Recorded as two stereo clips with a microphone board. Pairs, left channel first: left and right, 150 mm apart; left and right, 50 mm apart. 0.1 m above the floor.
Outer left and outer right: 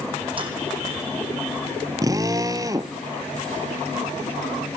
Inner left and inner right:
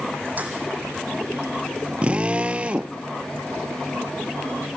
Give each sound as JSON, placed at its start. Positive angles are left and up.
{"t": 0.4, "sound": "keys jangling", "side_deg": -40, "distance_m": 3.5}
{"t": 2.0, "sound": "a drill", "side_deg": -25, "distance_m": 0.8}